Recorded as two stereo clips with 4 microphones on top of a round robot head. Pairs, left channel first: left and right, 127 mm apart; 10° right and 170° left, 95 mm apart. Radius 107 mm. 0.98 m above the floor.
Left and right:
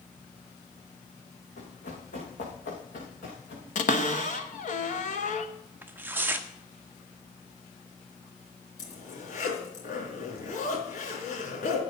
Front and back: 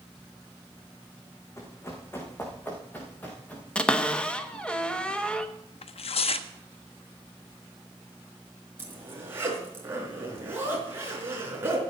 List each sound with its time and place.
1.6 s running footsteps: 50° left, 4 m; by 3.6 s 70° left, 5 m
3.8 s a cupboard door: 75° left, 1.2 m
5.8 s tearing paper: 15° right, 0.7 m
8.8 s a zipper: 105° left, 3.5 m